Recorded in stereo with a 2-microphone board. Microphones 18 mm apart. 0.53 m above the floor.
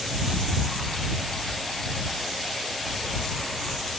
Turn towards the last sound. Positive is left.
No sound to turn to.